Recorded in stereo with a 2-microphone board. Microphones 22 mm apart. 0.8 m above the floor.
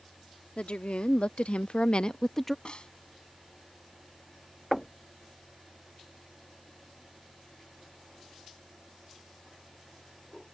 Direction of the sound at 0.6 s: 65° left (ahead or behind).